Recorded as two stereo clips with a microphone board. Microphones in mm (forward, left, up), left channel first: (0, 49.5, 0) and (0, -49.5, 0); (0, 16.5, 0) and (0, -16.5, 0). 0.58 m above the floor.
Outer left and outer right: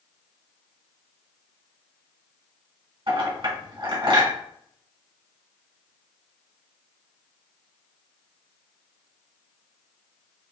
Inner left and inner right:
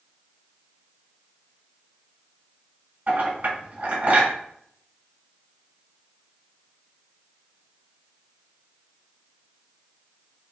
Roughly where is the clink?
Right.